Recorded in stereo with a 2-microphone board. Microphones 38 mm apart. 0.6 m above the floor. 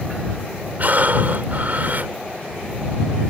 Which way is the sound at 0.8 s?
50° right (ahead or behind).